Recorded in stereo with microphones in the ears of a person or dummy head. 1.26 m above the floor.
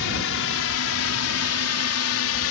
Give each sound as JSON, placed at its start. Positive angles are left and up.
{"t": 0.0, "sound": "a drone", "side_deg": 65}